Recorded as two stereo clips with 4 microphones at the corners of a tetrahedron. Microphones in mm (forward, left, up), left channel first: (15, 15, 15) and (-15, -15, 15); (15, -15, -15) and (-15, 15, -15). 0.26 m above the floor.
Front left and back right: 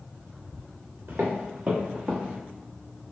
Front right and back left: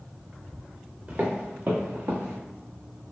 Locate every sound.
1.1 s footsteps: 175° right, 1.3 m; by 2.4 s 150° left, 1.1 m